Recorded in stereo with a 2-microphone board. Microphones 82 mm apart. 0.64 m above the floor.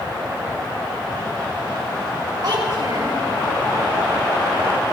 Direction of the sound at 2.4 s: 60° right (ahead or behind).